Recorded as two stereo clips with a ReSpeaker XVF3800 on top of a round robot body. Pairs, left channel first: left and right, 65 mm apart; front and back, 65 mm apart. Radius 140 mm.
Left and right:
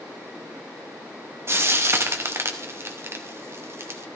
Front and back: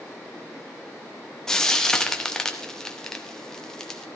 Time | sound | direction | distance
1.5 | frying | 75° right | 1.5 m